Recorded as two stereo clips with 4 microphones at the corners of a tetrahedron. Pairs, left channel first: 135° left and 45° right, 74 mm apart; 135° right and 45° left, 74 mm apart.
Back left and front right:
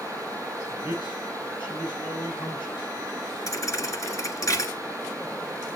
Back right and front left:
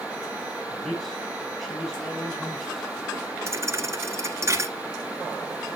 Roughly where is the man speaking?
Behind left.